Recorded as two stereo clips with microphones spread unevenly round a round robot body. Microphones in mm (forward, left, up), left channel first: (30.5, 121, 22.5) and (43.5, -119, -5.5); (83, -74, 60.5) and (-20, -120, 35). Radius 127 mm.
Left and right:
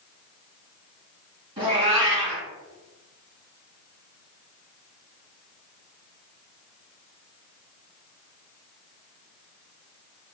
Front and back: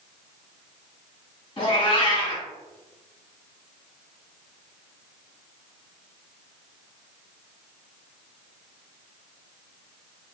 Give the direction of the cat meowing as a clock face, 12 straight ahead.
1 o'clock.